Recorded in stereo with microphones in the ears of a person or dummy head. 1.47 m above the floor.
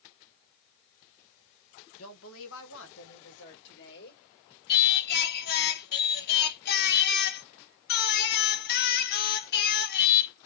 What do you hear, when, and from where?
2.0 s a woman speaking: 85° left, 1.6 m; by 4.2 s 60° left (ahead or behind), 3 m
4.7 s singing: 55° left (ahead or behind), 0.9 m